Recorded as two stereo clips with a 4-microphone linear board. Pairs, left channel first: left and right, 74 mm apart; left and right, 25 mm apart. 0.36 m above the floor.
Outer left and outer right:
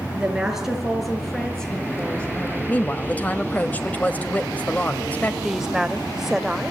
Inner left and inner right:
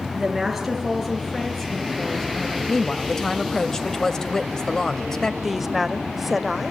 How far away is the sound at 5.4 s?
About 1.3 m.